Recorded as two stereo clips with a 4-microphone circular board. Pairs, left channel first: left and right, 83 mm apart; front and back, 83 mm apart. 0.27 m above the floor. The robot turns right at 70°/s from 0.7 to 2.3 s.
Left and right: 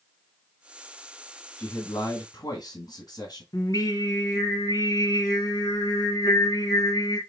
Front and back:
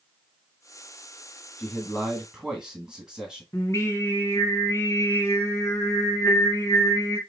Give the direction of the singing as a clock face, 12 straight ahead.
10 o'clock.